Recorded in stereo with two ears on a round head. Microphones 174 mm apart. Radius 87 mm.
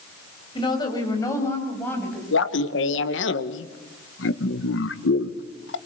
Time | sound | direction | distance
0.6 | a woman speaking | 25° left (ahead or behind) | 5.5 m
2.3 | laughter | 70° left (ahead or behind) | 1.4 m